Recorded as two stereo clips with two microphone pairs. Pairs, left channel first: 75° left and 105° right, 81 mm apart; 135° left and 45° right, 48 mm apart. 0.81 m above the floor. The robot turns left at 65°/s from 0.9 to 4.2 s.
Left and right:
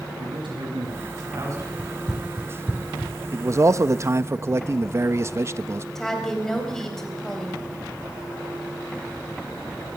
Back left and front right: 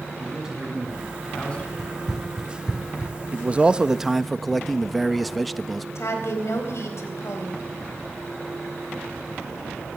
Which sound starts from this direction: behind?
Running footsteps, at 1.8 s.